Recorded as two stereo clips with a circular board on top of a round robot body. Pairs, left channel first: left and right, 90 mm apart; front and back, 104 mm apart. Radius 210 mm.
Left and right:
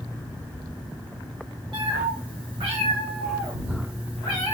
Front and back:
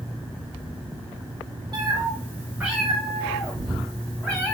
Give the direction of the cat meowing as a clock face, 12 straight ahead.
4 o'clock.